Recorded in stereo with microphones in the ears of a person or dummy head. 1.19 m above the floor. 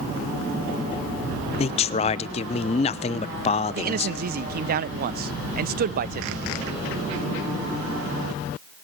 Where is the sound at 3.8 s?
50° right (ahead or behind), 0.8 m.